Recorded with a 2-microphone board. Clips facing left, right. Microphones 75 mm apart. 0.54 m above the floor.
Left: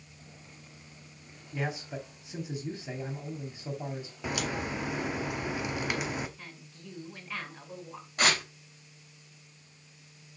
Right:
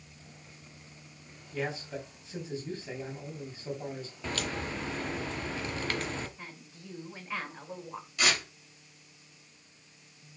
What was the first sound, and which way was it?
A man speaking, 15° left (ahead or behind).